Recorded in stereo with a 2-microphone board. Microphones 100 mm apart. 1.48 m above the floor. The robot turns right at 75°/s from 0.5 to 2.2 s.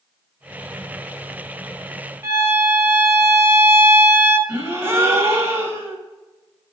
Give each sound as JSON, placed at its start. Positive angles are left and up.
{"t": 2.2, "sound": "a violin", "side_deg": -25, "distance_m": 1.7}
{"t": 4.5, "sound": "a gasp", "side_deg": -30, "distance_m": 1.6}